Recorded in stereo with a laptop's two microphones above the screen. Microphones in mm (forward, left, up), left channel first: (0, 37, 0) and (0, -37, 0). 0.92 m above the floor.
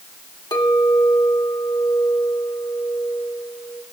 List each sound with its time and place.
0.5 s a clink: 75° left (ahead or behind), 1.4 m